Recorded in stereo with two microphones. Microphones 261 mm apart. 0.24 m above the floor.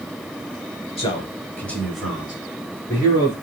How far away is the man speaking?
About 1.1 m.